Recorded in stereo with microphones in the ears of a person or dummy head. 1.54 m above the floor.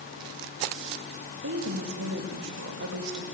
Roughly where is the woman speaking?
Right.